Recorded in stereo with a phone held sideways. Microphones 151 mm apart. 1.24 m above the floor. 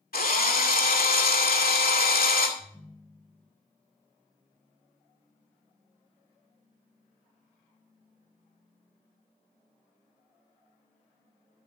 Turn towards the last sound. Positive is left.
turn(degrees=0)  # may be behind; listen again after turning